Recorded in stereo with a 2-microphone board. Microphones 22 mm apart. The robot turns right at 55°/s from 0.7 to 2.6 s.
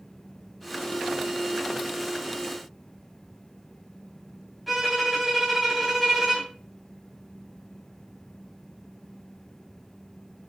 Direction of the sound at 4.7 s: Centre (ahead or behind).